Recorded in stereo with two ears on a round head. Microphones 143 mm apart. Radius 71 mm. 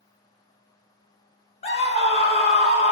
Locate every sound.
1.6 s a scream: 40° left (ahead or behind), 1.1 m